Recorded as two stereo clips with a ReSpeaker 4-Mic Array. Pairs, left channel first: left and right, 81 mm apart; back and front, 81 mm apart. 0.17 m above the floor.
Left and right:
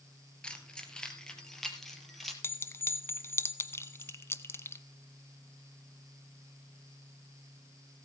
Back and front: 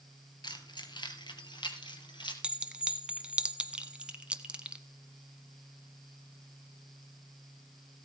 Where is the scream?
No scream in this recording.